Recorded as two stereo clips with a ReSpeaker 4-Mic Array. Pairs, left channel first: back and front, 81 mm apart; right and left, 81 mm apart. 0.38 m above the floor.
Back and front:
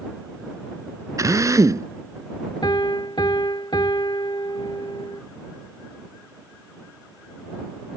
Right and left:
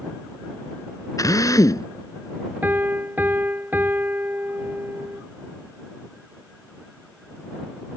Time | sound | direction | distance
1.2 | a drill | 45° right | ?
2.6 | a piano | 155° left | ?